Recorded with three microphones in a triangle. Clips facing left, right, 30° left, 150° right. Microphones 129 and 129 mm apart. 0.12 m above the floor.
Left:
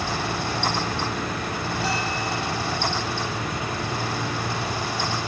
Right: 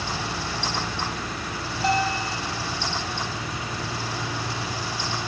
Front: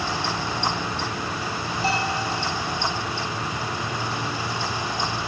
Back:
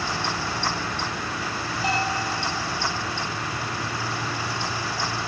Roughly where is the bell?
Right.